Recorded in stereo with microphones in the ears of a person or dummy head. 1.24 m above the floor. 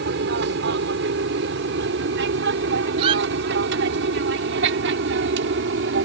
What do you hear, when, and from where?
0.0 s an aircraft: 60° right (ahead or behind); by 6.1 s 65° right (ahead or behind)
3.0 s a squeak: 25° right (ahead or behind)